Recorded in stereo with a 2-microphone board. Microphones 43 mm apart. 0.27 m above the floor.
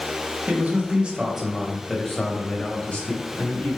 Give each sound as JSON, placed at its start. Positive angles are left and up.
{"t": 0.5, "sound": "a man speaking", "side_deg": -35, "distance_m": 1.1}